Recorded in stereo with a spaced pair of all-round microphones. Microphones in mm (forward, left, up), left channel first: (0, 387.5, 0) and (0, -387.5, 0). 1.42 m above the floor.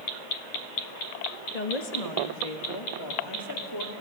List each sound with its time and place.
1.5 s a woman speaking: 60° left (ahead or behind), 1.8 m; by 3.9 s 25° left (ahead or behind), 3 m